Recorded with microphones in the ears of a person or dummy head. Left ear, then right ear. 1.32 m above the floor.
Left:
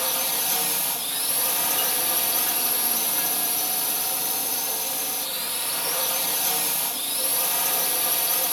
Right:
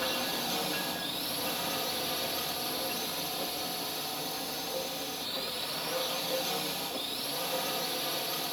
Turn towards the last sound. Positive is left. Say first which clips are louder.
# left 5 dB
turn(degrees=50)  # may be behind; listen again after turning